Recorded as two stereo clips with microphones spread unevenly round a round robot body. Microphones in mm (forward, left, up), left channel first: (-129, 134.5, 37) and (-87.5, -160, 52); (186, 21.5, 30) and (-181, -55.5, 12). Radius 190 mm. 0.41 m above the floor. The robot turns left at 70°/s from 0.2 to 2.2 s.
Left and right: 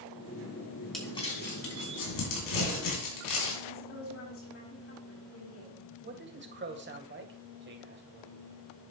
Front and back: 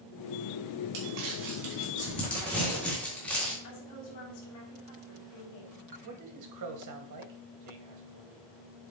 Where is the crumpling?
175° right, 3.5 m; by 3.5 s 100° left, 3.5 m.